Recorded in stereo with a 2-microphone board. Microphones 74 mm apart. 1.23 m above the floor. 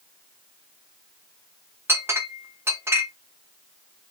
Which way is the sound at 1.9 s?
35° right (ahead or behind).